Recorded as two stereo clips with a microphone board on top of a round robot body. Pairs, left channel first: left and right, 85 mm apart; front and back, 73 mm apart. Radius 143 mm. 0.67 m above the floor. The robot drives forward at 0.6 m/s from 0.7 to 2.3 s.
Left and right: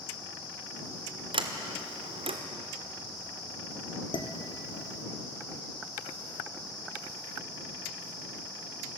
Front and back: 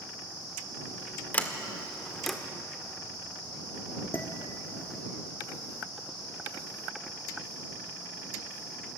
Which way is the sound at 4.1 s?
65° left.